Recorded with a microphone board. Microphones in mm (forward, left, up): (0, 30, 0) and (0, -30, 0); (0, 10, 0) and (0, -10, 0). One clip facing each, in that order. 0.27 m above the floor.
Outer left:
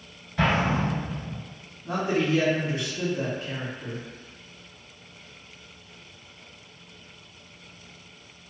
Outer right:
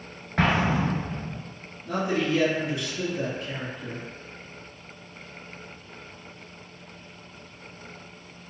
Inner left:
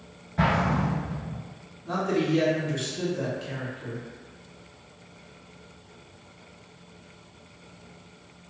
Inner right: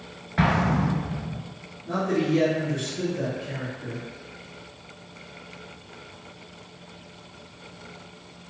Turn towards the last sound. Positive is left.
turn(degrees=45)  # may be behind; listen again after turning